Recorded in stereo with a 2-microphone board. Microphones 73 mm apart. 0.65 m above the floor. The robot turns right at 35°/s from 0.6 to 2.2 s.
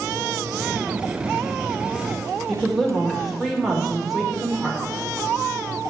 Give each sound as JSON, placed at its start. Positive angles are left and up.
{"t": 2.5, "sound": "a woman speaking", "side_deg": -5, "distance_m": 2.0}